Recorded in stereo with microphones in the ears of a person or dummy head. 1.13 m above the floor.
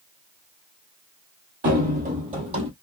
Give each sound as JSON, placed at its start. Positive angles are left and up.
{"t": 1.6, "sound": "running footsteps", "side_deg": -45, "distance_m": 1.7}